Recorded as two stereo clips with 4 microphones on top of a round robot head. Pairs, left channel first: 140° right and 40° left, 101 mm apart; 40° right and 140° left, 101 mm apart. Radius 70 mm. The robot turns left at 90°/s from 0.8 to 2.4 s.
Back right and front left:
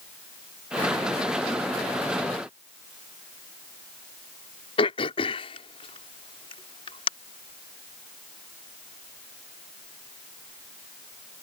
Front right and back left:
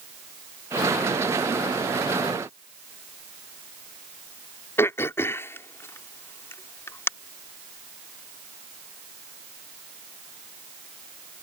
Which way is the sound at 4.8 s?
110° right.